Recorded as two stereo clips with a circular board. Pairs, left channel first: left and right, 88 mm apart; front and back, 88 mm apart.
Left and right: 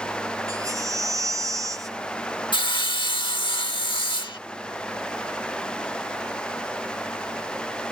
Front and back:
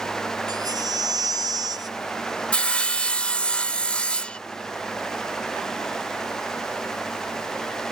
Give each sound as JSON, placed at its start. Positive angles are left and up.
{"t": 0.5, "sound": "a baby crying", "azimuth_deg": -140}
{"t": 2.5, "sound": "sawing", "azimuth_deg": 75}